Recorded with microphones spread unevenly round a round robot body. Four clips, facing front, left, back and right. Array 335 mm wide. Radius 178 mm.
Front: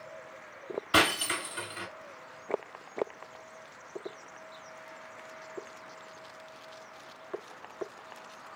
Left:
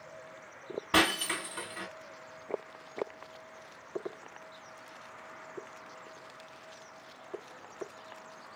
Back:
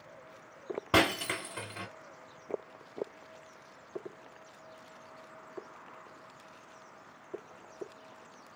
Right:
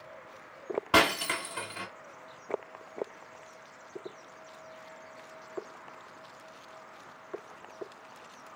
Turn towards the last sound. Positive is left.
turn(degrees=-175)